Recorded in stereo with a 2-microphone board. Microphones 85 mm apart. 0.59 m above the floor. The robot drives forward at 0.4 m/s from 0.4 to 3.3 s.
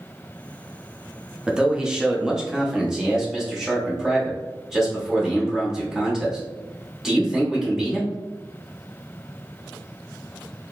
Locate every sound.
1.5 s a man speaking: 10° right (ahead or behind), 0.7 m; by 8.1 s 5° right (ahead or behind), 1.2 m